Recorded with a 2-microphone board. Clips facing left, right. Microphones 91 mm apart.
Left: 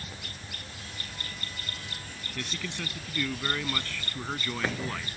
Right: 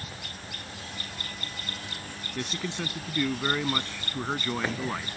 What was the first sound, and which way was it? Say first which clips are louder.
A man speaking: right 4 dB; 25° right (ahead or behind).